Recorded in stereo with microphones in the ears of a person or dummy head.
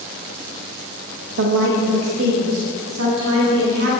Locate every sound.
1.4 s a woman speaking: 65° right (ahead or behind), 0.6 m; by 3.9 s 80° right, 2.5 m